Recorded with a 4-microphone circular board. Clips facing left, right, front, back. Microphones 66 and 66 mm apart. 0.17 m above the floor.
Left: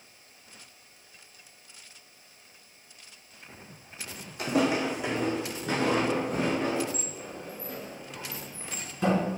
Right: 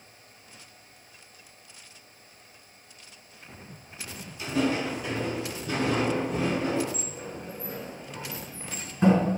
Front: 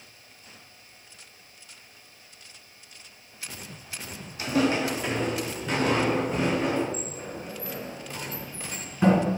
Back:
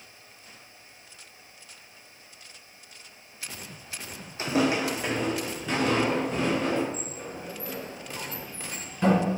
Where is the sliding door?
60° right, 1.7 m.